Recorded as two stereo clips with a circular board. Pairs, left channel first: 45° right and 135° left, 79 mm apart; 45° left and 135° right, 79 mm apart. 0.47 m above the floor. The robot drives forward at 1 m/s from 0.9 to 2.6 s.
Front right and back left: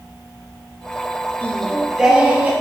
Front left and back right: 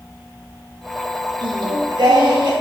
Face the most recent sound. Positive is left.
turn(degrees=-155)